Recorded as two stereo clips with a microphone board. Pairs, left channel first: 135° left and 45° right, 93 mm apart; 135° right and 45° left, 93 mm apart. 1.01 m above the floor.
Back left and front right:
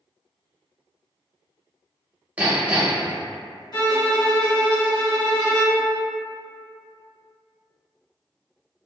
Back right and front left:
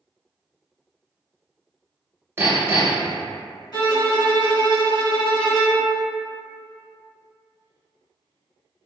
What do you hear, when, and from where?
2.4 s hammering: 15° left, 0.8 m
3.7 s a violin: straight behind, 1.2 m